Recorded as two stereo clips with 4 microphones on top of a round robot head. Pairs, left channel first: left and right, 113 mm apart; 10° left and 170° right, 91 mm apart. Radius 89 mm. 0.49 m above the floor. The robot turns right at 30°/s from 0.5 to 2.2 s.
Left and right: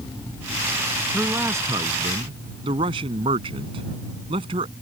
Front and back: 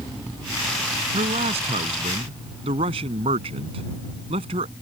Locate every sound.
1.1 s a man speaking: 170° right; by 4.7 s 140° right